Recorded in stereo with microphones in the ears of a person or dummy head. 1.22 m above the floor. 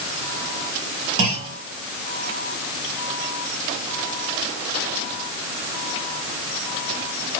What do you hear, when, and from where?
1.2 s a clunk: 70° right (ahead or behind), 2 m